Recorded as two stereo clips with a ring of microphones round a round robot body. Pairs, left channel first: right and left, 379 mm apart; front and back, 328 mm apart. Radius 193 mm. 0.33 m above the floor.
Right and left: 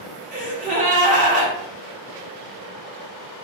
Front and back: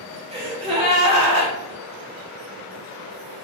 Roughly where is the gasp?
Behind left.